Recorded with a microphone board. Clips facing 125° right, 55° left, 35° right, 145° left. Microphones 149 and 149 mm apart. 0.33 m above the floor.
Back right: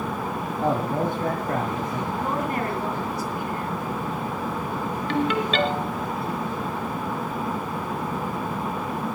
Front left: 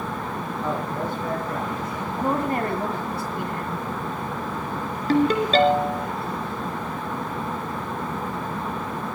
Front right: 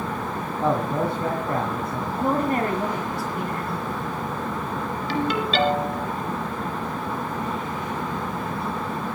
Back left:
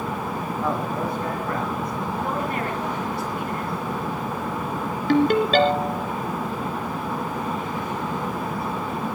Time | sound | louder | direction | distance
0.6 | a man speaking | back right 5 dB, front right 4 dB | 95° right | 2 m
2.2 | a woman speaking | front left 5 dB, front right 7 dB | straight ahead | 2.5 m
5.1 | a ringtone | front left 6 dB, back left 7 dB | 105° left | 2 m